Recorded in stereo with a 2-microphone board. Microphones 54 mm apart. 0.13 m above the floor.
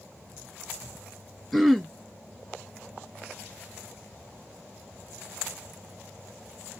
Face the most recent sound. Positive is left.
turn(degrees=0)  # may be behind; listen again after turning